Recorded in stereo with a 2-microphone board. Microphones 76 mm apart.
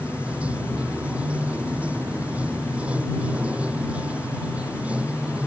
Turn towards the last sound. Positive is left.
turn(degrees=-15)  # may be behind; listen again after turning